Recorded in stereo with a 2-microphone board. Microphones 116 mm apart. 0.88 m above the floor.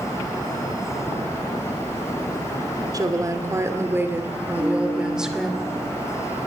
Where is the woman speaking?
35° right (ahead or behind), 2.5 m; by 5.5 s centre (ahead or behind), 3 m.